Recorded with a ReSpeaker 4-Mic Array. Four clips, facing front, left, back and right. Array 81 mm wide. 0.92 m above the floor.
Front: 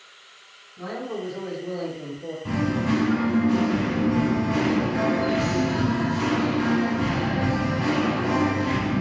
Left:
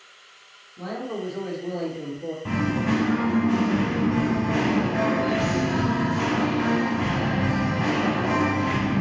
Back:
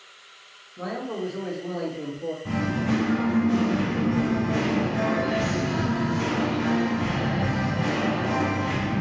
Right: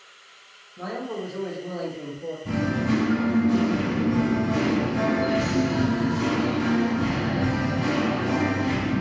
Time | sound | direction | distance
0.8 | a man speaking | 135° right | 1.4 m
2.5 | singing | 75° left | 0.8 m